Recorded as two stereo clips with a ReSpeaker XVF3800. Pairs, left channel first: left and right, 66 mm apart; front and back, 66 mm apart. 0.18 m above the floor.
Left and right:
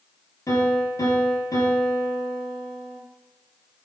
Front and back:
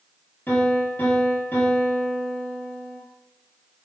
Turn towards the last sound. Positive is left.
turn(degrees=55)